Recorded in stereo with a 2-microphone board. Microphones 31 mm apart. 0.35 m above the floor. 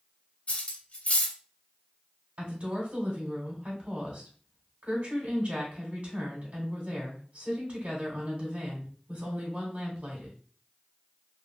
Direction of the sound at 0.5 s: 45° left (ahead or behind).